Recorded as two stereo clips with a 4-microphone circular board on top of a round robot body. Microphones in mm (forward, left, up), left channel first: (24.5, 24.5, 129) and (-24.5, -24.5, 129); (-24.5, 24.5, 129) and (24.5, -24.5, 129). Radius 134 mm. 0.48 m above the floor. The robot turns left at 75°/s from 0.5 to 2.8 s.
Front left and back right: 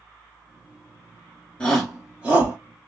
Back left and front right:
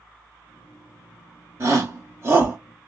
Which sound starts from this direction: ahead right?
A shout, at 1.6 s.